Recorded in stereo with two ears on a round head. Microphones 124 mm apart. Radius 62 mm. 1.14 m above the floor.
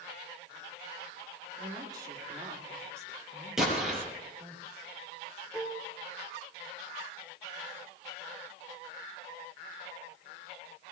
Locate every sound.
1.6 s a woman speaking: 30° right (ahead or behind), 3 m; by 4.6 s 15° right (ahead or behind), 5 m
3.6 s an explosion: 5° right (ahead or behind), 4.5 m
5.5 s dishes clattering: 10° left (ahead or behind), 2.5 m